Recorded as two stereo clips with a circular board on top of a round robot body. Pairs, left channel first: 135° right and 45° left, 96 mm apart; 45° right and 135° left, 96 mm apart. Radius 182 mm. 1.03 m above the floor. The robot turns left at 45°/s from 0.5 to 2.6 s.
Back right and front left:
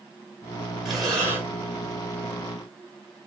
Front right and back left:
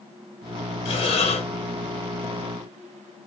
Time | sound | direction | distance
0.8 | breathing | 40° right | 2 m